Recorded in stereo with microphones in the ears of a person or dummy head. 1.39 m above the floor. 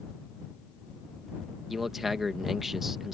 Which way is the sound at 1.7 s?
5° right (ahead or behind).